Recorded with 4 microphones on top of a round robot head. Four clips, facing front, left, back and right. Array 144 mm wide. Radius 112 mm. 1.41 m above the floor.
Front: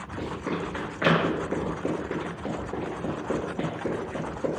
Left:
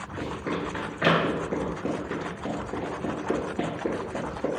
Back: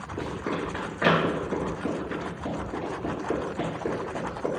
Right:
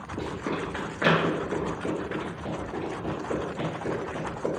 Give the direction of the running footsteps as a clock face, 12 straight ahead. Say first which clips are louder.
Even, even; 4 o'clock.